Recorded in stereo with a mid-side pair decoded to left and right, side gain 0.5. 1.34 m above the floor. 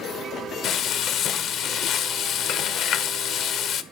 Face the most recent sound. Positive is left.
turn(degrees=60)